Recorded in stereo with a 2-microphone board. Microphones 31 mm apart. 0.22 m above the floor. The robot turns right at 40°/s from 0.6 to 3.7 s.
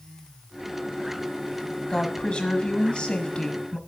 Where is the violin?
I don't hear a violin.